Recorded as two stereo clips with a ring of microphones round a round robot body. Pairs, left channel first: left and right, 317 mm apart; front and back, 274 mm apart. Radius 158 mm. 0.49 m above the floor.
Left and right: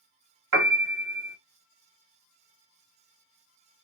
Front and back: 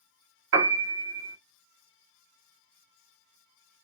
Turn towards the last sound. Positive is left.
turn(degrees=-130)